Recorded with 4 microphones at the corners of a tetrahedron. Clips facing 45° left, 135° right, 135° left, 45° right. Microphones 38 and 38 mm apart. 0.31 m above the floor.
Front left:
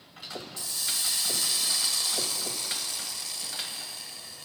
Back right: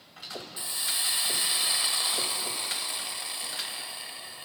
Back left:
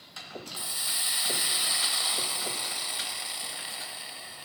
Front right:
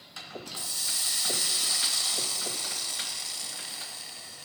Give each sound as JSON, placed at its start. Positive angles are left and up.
{"t": 0.6, "sound": "a hiss", "azimuth_deg": -175, "distance_m": 0.8}